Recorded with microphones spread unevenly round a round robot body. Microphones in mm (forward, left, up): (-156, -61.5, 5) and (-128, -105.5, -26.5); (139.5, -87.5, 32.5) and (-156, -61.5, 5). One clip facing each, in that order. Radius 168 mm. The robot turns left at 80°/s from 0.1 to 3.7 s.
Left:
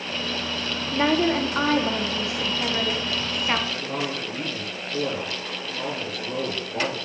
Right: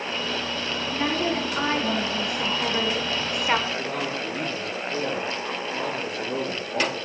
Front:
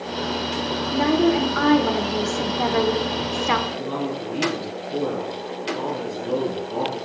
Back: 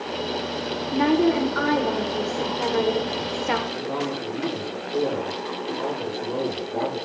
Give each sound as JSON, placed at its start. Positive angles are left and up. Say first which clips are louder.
{"t": 0.9, "sound": "a woman speaking", "louder": "left 5 dB, even", "azimuth_deg": 130, "distance_m": 1.2}
{"t": 3.7, "sound": "a man speaking", "louder": "right 1 dB, front 1 dB", "azimuth_deg": 20, "distance_m": 6.5}